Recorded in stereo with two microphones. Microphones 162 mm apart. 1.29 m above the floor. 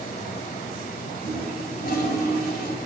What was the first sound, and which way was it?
A toilet flushing, 65° left (ahead or behind).